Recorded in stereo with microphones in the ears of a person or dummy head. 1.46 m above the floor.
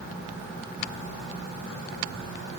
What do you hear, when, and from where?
Only background noise.